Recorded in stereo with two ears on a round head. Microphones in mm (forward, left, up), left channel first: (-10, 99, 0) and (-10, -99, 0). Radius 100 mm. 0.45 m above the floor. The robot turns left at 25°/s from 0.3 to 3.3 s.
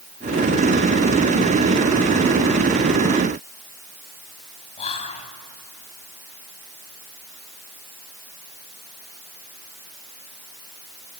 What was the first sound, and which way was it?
Whispering, 30° left (ahead or behind).